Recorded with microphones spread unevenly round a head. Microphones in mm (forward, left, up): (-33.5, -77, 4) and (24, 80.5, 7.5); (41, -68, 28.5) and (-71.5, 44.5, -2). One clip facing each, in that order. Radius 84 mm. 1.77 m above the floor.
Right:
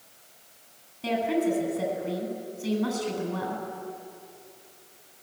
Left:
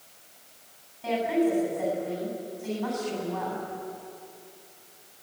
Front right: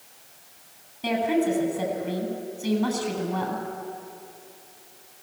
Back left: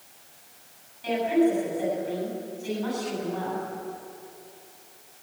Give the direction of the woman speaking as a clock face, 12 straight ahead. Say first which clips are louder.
Left 1 dB, back left 1 dB; 2 o'clock.